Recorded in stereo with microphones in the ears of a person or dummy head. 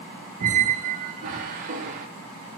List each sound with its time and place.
0.4 s a squeak: 40° right (ahead or behind), 0.6 m